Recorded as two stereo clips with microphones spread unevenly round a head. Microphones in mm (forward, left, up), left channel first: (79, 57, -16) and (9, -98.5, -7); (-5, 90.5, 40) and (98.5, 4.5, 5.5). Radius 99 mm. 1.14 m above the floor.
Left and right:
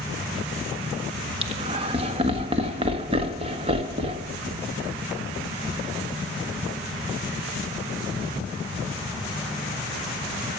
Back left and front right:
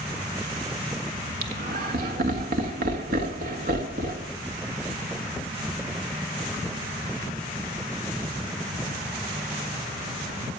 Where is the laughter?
60° right, 1.7 m.